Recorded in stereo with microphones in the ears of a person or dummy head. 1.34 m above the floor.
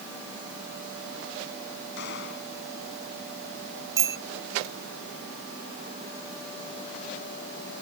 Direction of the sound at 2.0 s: 60° left (ahead or behind).